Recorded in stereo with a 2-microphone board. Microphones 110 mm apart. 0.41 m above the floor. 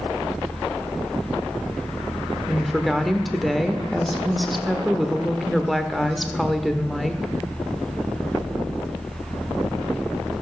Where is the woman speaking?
Centre (ahead or behind), 0.8 m.